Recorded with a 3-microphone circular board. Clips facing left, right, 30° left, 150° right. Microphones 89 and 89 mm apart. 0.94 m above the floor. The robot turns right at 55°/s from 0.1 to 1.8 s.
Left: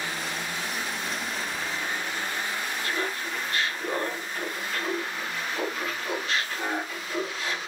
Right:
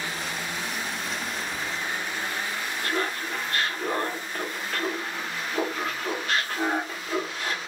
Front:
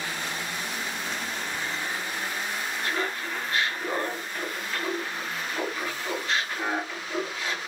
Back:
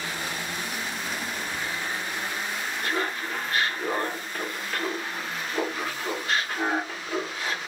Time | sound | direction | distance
2.8 | laughter | 120° right | 1.7 m